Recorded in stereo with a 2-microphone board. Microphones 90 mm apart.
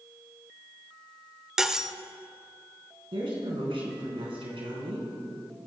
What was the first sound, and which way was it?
Cutlery clinking, 5° right (ahead or behind).